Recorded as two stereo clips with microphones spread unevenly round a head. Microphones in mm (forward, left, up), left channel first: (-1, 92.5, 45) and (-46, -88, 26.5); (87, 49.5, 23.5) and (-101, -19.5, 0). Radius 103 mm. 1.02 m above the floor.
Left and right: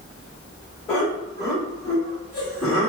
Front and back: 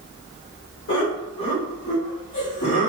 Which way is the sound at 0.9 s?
5° right.